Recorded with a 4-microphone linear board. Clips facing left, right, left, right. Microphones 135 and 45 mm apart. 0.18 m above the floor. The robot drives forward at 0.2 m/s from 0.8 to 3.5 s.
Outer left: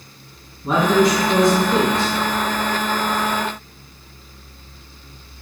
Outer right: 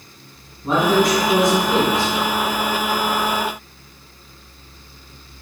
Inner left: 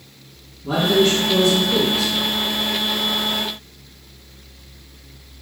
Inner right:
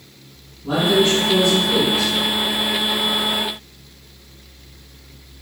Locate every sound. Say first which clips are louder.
0.6 s a man speaking: outer left 1 dB, even; 5° right (ahead or behind), 1.7 m